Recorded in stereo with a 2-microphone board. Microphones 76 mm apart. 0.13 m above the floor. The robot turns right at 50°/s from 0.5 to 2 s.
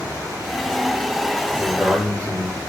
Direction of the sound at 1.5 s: 15° right (ahead or behind).